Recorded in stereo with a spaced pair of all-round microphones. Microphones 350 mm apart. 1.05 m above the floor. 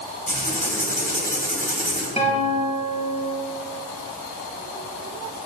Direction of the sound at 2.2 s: 20° left (ahead or behind).